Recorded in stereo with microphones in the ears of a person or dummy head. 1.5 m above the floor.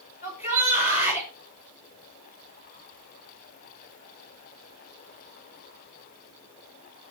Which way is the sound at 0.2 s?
40° left (ahead or behind).